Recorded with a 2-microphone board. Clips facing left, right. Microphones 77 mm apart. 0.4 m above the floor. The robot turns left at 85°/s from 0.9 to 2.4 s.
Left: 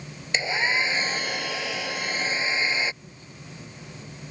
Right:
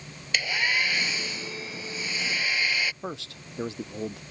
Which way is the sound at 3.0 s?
85° right.